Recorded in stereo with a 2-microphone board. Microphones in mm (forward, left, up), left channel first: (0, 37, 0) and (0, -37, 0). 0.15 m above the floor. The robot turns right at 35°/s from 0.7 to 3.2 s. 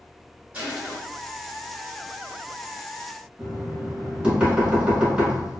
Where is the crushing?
20° right (ahead or behind), 1.8 m.